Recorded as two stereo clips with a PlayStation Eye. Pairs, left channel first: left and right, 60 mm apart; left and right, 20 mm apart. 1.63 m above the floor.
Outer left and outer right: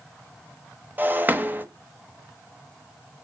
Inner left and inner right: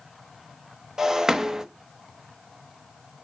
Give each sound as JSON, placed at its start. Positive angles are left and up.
{"t": 1.0, "sound": "breaking glass", "side_deg": -30, "distance_m": 1.4}